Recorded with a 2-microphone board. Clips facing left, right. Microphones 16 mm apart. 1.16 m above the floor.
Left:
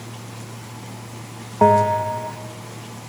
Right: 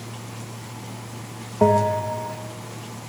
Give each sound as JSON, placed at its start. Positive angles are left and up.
{"t": 1.6, "sound": "a bell", "side_deg": 40, "distance_m": 0.5}